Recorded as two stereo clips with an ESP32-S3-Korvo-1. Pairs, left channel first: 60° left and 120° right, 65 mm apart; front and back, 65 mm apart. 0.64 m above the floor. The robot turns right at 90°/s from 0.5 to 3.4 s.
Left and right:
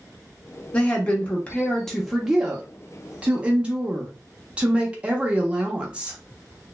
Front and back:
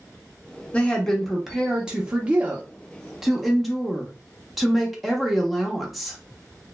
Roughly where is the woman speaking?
Ahead left.